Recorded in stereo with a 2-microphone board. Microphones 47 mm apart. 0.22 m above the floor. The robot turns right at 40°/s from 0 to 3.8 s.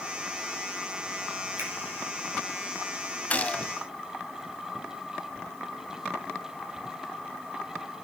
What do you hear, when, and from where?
1.6 s a finger snap: 55° right (ahead or behind), 4 m; by 1.7 s 50° right (ahead or behind), 4 m
3.3 s a gunshot: 35° left (ahead or behind), 0.5 m; by 3.7 s 25° left (ahead or behind), 0.5 m